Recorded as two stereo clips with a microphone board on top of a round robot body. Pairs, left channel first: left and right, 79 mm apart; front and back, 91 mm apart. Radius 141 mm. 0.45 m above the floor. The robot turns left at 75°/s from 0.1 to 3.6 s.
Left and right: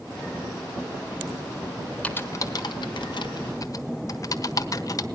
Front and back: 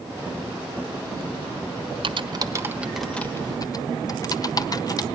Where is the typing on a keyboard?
165° left, 1.4 m; by 5.0 s 45° left, 1.4 m.